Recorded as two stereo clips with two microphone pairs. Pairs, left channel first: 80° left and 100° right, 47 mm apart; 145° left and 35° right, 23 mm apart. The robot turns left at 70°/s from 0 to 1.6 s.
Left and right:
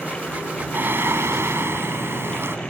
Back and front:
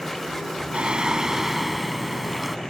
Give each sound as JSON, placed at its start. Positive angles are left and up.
{"t": 0.7, "sound": "singing", "azimuth_deg": -60}